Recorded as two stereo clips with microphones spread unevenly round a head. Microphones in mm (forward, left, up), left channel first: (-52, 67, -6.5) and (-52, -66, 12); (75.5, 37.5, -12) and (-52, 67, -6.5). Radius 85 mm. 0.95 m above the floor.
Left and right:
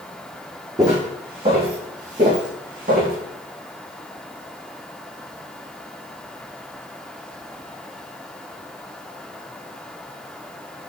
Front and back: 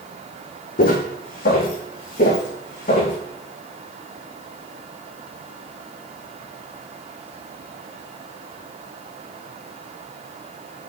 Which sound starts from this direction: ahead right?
Footsteps, at 0.8 s.